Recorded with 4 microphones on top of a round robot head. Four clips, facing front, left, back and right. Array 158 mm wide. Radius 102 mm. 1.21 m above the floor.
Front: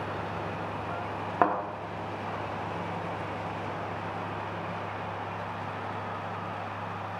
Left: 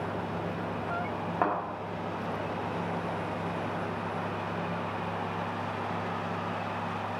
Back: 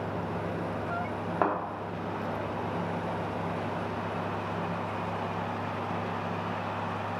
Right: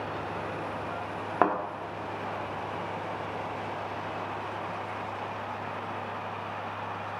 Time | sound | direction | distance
1.4 | a thud | 60° right | 0.7 m